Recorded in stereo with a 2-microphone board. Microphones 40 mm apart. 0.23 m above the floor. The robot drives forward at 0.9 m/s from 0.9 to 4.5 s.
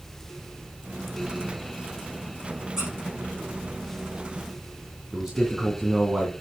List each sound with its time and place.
2.8 s a squeak: 20° right (ahead or behind), 6.5 m
5.1 s a man speaking: 20° right (ahead or behind), 2.5 m